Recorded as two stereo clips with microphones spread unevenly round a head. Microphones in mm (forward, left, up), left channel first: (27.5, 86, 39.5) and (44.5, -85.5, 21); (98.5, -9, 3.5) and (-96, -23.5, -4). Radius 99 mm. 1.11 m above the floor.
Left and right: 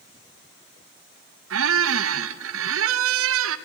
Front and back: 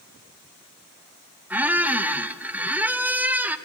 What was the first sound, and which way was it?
A squeak, 95° right.